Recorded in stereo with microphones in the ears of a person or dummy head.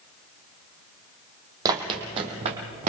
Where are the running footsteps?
20° right (ahead or behind), 2 m; by 2.9 s 40° right (ahead or behind), 2.5 m.